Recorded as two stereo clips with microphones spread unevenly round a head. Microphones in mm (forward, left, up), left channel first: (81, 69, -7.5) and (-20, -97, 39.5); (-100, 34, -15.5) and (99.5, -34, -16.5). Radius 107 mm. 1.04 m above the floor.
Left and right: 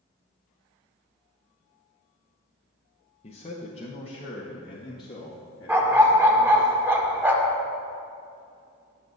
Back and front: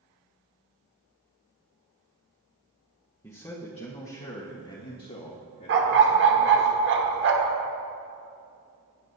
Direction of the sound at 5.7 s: 50° right.